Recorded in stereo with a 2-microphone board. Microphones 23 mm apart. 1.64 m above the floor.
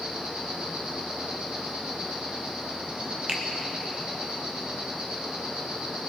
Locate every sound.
0.0 s an insect: 55° right (ahead or behind), 3.5 m
3.3 s a finger snap: 45° right (ahead or behind), 1.2 m